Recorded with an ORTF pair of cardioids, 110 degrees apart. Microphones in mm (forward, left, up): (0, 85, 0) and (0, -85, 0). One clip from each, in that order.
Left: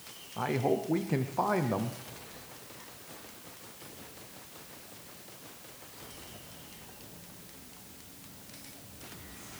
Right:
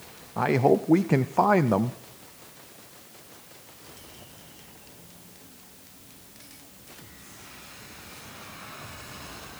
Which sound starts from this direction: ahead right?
A man speaking, at 0.4 s.